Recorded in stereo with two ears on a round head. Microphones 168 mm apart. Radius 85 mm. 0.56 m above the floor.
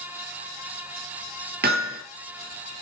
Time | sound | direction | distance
1.6 | hammering | 50° right (ahead or behind) | 7.5 m